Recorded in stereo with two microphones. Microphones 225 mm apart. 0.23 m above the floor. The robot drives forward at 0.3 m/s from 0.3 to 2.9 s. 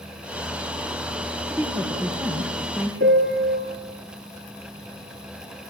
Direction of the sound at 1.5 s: 10° right (ahead or behind).